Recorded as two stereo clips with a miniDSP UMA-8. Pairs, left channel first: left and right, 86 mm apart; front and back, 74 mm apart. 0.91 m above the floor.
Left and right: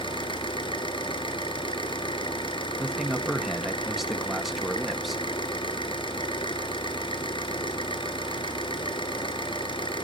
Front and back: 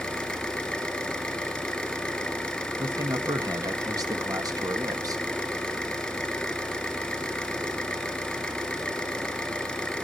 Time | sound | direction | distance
0.0 | an engine running | 80° left | 3 m
2.8 | a man speaking | straight behind | 1.4 m